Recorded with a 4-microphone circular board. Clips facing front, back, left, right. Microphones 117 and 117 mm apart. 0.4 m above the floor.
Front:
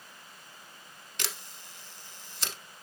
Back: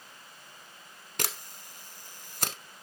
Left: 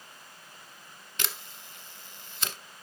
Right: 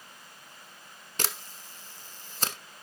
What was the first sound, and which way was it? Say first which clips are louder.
A camera shutter: back 4 dB, right 3 dB; 140° right.